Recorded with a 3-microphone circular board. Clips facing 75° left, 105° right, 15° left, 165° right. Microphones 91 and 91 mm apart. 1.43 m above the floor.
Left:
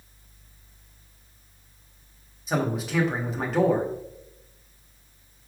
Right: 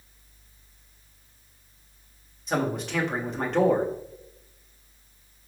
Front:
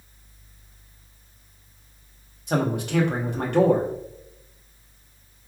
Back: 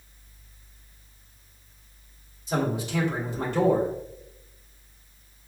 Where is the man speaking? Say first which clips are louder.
Even, front 3 dB; 10° right, 1.0 m.